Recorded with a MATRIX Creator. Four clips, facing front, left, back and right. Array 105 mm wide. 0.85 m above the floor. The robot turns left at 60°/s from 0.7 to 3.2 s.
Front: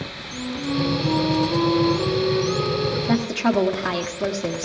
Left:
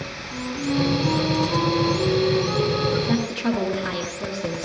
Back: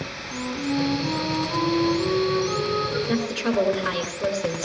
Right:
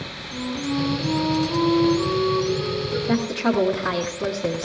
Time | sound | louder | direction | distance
0.3 | a flute | left 1 dB, even | 165° right | 6.5 m
3.1 | a woman speaking | right 1 dB, front 3 dB | 5° right | 1.3 m